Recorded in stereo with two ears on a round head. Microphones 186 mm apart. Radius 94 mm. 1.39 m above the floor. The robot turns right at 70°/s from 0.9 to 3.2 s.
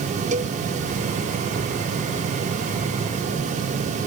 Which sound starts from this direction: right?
A cowbell, at 0.3 s.